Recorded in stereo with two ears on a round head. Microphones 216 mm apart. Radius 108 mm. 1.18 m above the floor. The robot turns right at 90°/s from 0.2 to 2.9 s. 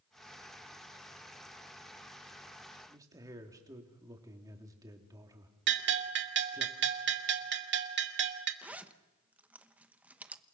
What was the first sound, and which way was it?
A man speaking, 15° right (ahead or behind).